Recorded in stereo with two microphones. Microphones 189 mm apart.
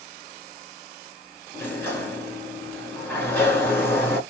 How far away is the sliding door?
About 1.1 m.